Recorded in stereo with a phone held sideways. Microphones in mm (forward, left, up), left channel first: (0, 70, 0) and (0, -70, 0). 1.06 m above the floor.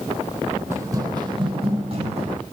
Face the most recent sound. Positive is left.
turn(degrees=-45)  # may be behind; listen again after turning